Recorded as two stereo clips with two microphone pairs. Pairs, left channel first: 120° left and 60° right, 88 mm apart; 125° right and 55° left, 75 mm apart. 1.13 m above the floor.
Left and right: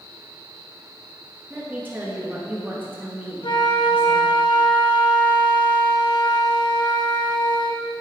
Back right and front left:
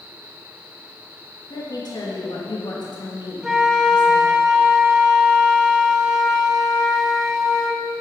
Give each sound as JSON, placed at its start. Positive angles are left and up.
{"t": 1.5, "sound": "a woman speaking", "azimuth_deg": -125, "distance_m": 2.0}
{"t": 3.4, "sound": "a flute", "azimuth_deg": 140, "distance_m": 0.8}